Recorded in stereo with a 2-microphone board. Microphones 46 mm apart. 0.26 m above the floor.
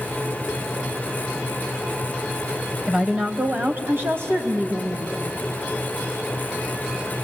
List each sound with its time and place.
2.9 s a woman speaking: 15° right (ahead or behind), 1.1 m; by 5.2 s 55° right (ahead or behind), 2.5 m